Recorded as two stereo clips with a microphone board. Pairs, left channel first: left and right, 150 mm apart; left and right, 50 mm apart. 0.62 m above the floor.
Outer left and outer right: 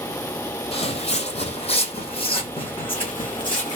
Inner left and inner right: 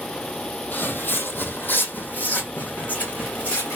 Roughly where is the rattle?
I don't hear a rattle.